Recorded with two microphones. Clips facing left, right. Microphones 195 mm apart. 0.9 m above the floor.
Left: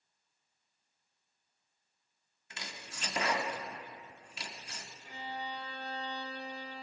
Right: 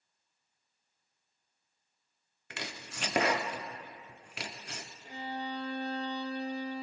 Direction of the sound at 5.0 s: 35° right (ahead or behind).